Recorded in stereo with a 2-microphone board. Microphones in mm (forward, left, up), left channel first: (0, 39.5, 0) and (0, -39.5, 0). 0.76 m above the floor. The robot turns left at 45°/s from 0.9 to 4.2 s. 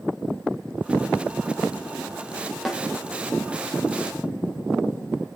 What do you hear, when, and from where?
2.6 s a snare drum: centre (ahead or behind), 1.7 m; by 2.8 s 5° left (ahead or behind), 1.7 m